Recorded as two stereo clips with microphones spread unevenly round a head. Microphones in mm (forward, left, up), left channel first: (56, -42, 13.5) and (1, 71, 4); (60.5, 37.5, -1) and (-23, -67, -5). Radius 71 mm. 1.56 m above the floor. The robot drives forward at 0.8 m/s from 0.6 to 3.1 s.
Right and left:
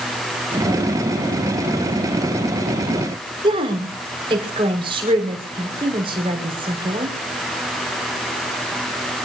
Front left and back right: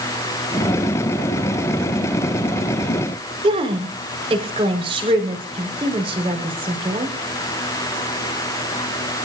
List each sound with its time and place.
3.4 s a woman speaking: 175° left, 6 m